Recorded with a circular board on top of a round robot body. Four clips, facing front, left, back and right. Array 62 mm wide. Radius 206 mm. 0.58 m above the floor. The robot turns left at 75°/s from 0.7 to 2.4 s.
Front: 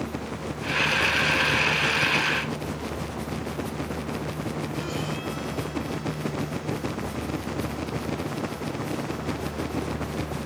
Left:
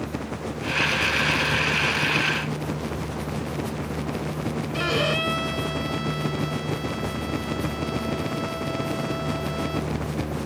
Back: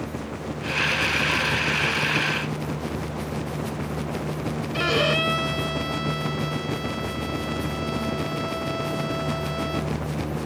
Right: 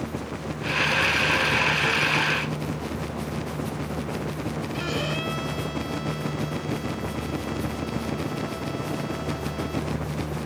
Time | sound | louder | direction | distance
4.7 | a violin | left 7 dB, back 8 dB | 155° left | ?